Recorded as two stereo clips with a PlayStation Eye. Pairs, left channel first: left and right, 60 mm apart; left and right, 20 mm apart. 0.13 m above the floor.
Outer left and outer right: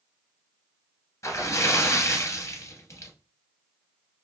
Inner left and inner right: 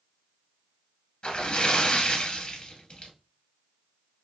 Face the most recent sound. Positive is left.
turn(degrees=50)  # may be behind; listen again after turning